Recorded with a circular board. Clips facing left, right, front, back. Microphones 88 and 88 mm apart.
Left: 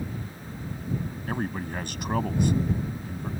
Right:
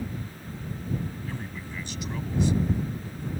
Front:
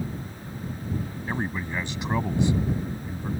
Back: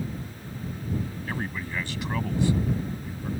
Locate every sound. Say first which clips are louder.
1.3 s a man speaking: left 7 dB, front 6 dB; 70° left